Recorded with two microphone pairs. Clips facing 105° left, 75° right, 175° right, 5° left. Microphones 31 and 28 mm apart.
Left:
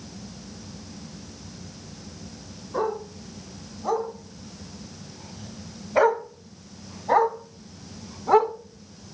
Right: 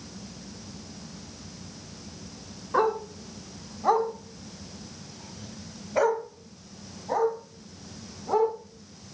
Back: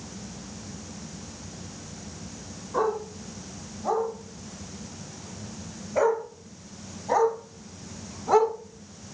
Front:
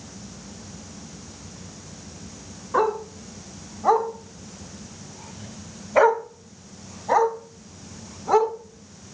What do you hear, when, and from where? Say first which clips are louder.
2.7 s a dog barking: right 3 dB, front 4 dB; 35° right, 1.9 m; by 8.5 s 90° left, 1.9 m